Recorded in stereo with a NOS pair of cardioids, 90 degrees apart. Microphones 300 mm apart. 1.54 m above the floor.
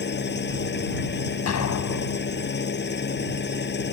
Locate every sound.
0.0 s an engine running: 35° left
1.5 s an explosion: 60° left